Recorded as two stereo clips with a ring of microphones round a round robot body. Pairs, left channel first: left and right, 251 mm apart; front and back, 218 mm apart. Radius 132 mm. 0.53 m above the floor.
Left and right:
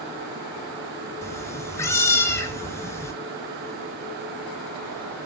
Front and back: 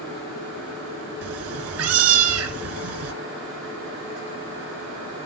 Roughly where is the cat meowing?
Behind.